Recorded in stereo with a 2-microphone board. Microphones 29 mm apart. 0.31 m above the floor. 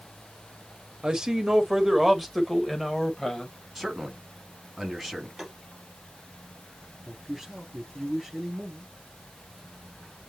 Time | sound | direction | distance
1.0 | a man speaking | 25° right (ahead or behind) | 1.3 m
3.8 | a man speaking | centre (ahead or behind) | 3 m
5.4 | tapping | 15° right (ahead or behind) | 4 m
7.0 | a man speaking | 10° right (ahead or behind) | 5 m